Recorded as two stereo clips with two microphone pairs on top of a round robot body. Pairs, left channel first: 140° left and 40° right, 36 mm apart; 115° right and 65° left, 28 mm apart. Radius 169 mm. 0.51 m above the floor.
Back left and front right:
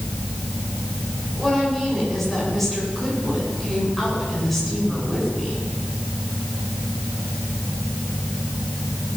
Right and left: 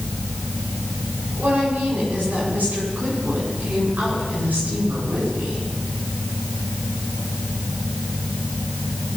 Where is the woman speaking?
55° left, 8 m.